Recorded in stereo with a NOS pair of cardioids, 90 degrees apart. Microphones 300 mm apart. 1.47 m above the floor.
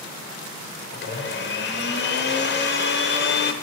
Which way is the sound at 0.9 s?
35° left.